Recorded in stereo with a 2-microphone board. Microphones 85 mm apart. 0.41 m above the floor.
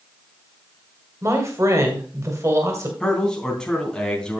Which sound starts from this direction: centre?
A man speaking, at 3.0 s.